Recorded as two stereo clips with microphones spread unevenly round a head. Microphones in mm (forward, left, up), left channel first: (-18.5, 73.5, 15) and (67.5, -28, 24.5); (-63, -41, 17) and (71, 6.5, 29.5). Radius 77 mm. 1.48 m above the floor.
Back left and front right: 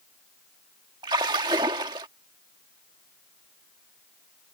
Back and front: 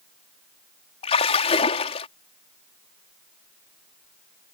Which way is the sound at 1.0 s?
110° right.